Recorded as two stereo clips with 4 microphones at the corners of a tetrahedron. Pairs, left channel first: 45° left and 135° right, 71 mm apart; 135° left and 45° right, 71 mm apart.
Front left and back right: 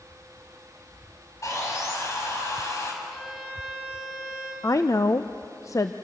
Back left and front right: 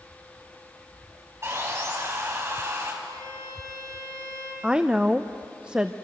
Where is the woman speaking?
30° left, 0.6 m.